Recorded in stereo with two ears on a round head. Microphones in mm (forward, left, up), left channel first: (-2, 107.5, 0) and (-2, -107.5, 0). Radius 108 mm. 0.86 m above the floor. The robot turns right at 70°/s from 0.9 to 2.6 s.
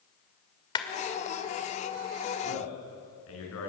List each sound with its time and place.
0.8 s a clap: 20° left (ahead or behind), 2 m
2.4 s a man speaking: 80° left, 9 m; by 3.7 s 65° left (ahead or behind), 9 m